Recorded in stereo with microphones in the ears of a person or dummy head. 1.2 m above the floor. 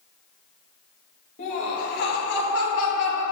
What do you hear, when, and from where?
1.4 s laughter: 40° left (ahead or behind), 1.7 m; by 3.2 s 75° left (ahead or behind), 2 m